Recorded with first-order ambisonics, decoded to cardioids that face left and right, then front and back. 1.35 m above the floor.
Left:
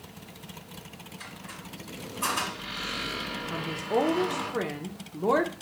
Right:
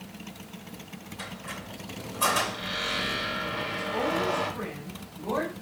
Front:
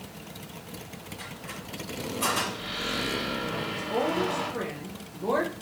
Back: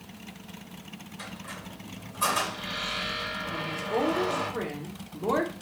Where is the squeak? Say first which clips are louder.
Right 5 dB, back 1 dB; 105° right, 3 m.